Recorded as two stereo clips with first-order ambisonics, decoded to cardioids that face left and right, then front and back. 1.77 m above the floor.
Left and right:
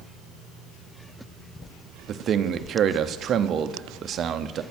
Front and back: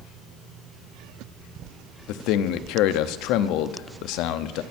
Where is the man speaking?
30° right, 0.8 m.